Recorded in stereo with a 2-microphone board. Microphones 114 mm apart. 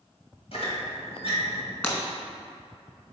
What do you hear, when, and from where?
0.5 s a squeak: 60° left (ahead or behind), 1.6 m
1.8 s breaking glass: 15° left (ahead or behind), 1.6 m